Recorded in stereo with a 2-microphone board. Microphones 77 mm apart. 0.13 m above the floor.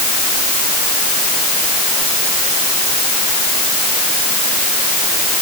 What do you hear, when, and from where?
Only background noise.